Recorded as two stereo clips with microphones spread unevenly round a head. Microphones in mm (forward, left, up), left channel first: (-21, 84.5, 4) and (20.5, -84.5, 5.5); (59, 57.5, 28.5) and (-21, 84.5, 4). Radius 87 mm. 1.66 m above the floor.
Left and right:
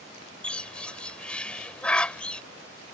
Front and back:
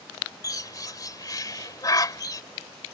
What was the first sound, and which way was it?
A bird, 20° left.